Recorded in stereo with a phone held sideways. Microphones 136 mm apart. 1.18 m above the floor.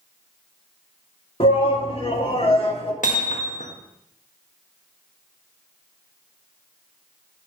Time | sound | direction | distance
1.4 | a shout | 50° left (ahead or behind) | 2 m
3.0 | hammering | 80° left | 1.4 m